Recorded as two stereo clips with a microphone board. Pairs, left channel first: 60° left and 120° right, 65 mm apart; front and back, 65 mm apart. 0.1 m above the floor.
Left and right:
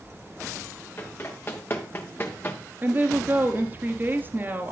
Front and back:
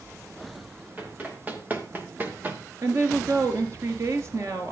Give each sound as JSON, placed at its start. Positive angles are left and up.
{"t": 1.0, "sound": "running footsteps", "azimuth_deg": 115, "distance_m": 4.0}
{"t": 2.8, "sound": "a woman speaking", "azimuth_deg": -170, "distance_m": 1.9}